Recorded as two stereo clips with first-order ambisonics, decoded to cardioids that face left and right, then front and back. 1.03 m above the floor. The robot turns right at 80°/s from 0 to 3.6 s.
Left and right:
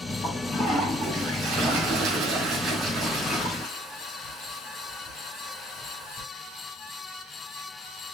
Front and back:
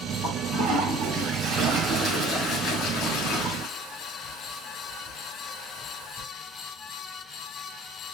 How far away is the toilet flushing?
About 1.7 m.